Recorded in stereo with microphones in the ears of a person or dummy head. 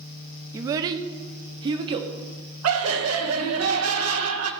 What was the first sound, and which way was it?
A child speaking, 15° right (ahead or behind).